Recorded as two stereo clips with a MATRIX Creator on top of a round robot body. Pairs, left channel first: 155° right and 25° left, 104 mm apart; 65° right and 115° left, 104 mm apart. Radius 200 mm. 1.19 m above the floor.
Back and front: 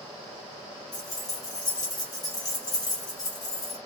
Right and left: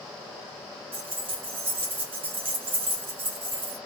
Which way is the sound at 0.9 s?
145° left.